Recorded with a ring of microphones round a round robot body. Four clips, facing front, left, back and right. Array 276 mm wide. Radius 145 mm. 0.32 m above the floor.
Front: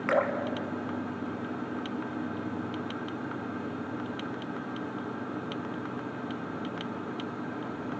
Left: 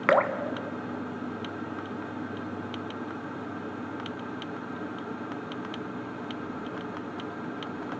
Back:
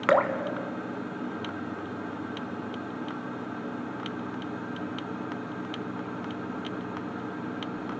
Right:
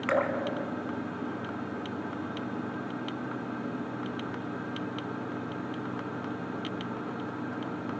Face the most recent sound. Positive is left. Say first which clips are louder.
# left 5 dB, back 4 dB
turn(degrees=130)